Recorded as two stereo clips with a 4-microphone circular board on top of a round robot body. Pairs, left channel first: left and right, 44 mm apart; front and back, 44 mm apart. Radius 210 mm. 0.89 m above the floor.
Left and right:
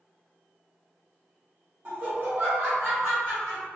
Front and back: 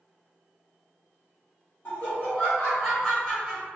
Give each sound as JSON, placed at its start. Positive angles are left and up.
{"t": 1.9, "sound": "laughter", "azimuth_deg": -45, "distance_m": 1.7}